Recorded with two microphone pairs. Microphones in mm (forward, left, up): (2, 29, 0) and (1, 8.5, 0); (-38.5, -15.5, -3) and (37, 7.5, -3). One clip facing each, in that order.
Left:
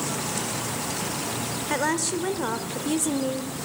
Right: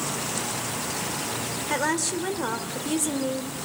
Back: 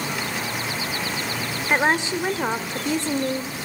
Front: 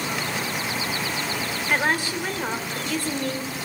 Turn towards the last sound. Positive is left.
turn(degrees=180)